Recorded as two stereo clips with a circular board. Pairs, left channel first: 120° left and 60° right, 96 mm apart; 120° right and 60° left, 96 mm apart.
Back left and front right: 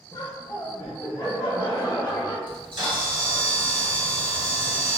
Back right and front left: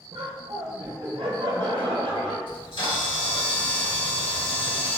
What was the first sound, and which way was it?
Laughter, 70° left.